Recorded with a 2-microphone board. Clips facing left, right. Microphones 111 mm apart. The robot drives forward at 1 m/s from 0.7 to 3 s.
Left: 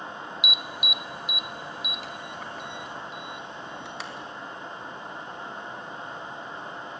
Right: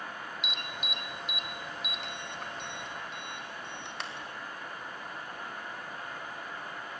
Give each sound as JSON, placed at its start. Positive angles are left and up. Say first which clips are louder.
{"t": 0.4, "sound": "an alarm", "louder": "left 4 dB", "side_deg": 5, "distance_m": 0.6}